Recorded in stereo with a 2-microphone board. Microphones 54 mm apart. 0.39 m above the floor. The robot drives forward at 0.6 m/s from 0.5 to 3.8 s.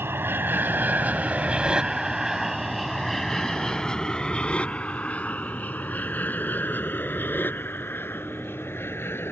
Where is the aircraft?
45° right (ahead or behind); by 9.3 s 45° left (ahead or behind).